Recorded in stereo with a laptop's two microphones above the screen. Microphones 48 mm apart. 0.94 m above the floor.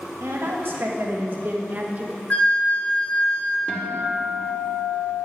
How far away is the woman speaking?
About 1.8 m.